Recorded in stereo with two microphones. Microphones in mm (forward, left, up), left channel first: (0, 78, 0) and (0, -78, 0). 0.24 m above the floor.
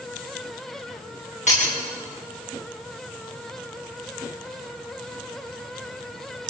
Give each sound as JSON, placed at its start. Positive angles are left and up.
{"t": 1.5, "sound": "breaking glass", "side_deg": 45, "distance_m": 10.0}